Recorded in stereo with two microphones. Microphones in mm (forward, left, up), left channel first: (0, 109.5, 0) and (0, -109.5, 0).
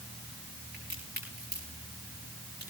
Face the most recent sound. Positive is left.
turn(degrees=-45)  # may be behind; listen again after turning